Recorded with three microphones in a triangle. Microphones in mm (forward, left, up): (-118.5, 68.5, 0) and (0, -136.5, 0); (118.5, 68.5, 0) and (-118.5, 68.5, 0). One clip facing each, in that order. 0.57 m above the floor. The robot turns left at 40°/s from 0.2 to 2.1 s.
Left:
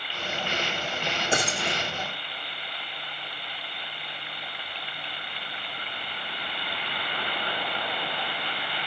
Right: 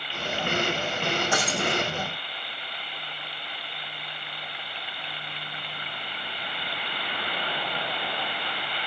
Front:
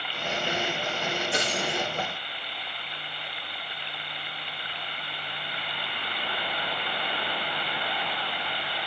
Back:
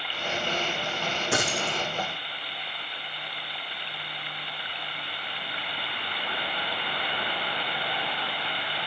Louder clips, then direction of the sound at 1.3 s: Right 2 dB, back 1 dB; 170° right.